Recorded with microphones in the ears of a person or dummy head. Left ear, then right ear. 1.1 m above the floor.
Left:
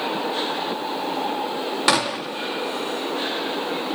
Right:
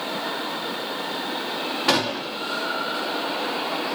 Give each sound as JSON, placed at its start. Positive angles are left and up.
{"t": 1.9, "sound": "a gunshot", "side_deg": 55, "distance_m": 0.7}